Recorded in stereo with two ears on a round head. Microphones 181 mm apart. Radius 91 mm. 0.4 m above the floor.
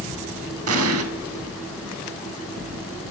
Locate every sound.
0.7 s an explosion: 75° right (ahead or behind), 0.6 m